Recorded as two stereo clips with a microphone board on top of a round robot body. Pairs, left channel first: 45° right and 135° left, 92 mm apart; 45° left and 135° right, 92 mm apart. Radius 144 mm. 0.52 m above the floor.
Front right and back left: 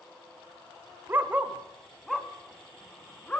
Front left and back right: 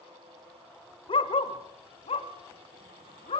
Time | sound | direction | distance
1.1 | a dog barking | 70° left | 1.1 m